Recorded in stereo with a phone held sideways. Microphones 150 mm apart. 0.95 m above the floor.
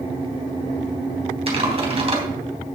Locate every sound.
1.5 s typing on a keyboard: 40° right (ahead or behind), 3 m